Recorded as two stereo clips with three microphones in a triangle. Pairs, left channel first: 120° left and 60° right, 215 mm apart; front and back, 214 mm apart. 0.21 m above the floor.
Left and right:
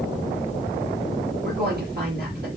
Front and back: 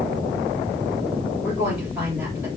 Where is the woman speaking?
100° right, 3.5 m.